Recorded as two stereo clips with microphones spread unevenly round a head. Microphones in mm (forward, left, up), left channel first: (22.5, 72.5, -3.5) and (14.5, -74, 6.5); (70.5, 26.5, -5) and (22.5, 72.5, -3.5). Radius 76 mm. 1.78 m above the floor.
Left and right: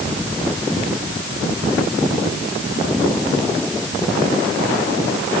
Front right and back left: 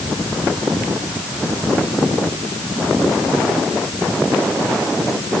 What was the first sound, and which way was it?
Only background noise.